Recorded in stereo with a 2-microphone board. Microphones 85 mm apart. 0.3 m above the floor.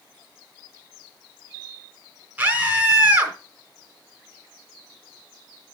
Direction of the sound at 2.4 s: 20° right (ahead or behind).